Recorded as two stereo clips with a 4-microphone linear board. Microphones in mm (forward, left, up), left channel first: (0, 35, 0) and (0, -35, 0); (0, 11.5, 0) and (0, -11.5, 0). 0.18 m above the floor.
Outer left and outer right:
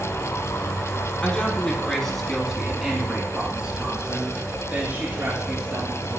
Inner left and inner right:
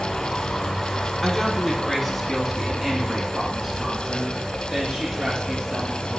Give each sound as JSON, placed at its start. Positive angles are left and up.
{"t": 1.2, "sound": "a woman speaking", "side_deg": 25, "distance_m": 1.5}